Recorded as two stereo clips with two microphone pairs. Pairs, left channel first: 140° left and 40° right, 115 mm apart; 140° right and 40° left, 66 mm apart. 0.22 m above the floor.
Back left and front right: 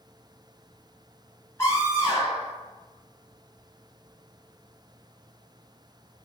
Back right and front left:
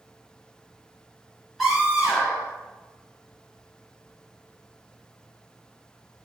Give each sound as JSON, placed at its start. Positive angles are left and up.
{"t": 1.6, "sound": "a scream", "azimuth_deg": 130, "distance_m": 1.5}